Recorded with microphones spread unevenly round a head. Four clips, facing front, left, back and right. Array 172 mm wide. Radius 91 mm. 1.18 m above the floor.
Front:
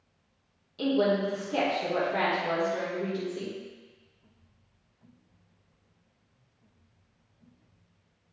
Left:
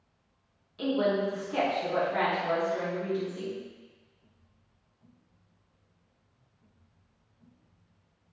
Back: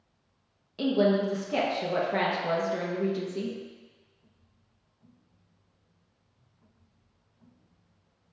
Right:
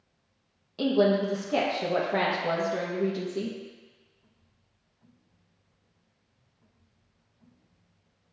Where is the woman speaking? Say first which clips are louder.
Right 4 dB, back 1 dB; 120° right, 1.6 m.